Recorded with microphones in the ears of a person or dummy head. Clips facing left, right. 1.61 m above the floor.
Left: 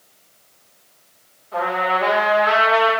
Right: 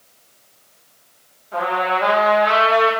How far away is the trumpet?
About 1.4 m.